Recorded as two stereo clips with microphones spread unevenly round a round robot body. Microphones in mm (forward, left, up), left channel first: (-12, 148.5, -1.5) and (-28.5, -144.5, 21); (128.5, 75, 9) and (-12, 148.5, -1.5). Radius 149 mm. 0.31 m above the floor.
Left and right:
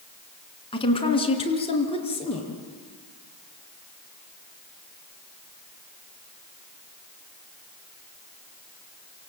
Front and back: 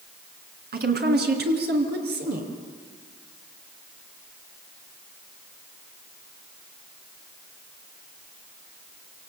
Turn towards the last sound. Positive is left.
turn(degrees=155)